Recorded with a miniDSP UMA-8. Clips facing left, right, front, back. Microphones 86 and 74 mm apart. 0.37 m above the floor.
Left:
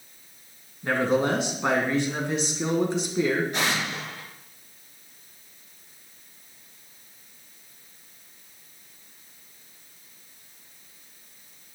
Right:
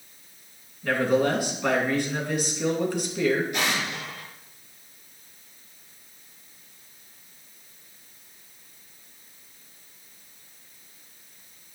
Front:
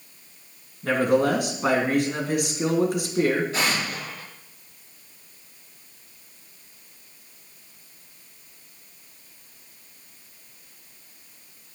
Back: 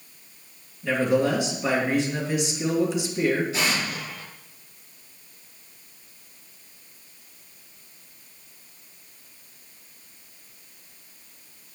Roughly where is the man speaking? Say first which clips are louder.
Right 1 dB, front 1 dB; ahead left.